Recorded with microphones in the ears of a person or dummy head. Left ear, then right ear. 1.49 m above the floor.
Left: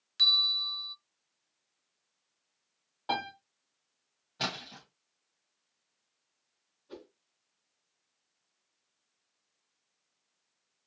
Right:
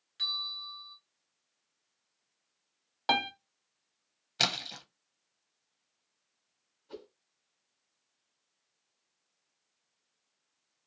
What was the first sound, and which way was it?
A bell, 30° left (ahead or behind).